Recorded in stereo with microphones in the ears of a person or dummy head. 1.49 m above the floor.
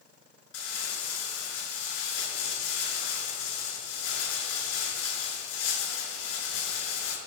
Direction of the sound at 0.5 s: 80° left.